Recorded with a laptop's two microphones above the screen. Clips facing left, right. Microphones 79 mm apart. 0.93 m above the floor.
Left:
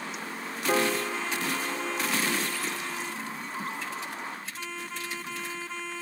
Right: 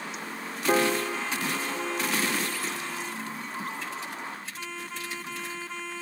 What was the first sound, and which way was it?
A piano, 15° right (ahead or behind).